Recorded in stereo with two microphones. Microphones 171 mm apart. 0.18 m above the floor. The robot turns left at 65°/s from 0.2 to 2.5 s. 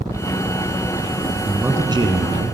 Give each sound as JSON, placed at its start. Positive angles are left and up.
{"t": 1.4, "sound": "a man speaking", "azimuth_deg": -5, "distance_m": 1.9}